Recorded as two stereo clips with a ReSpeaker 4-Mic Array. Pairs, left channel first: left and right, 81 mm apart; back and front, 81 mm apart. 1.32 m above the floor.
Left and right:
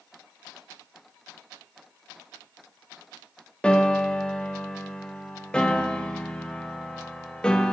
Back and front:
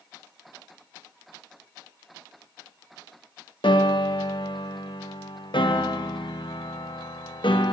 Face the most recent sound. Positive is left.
turn(degrees=170)